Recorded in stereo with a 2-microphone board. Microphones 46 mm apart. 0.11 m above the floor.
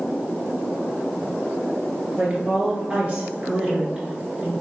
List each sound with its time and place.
2.2 s a woman speaking: 20° right (ahead or behind), 1.9 m